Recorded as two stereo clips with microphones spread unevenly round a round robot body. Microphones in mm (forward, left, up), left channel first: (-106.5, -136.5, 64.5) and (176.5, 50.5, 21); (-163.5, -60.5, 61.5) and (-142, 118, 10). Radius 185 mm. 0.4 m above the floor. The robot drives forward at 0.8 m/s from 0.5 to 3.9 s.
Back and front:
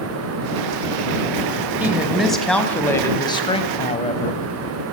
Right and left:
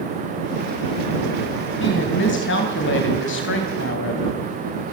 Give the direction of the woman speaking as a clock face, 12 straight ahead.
2 o'clock.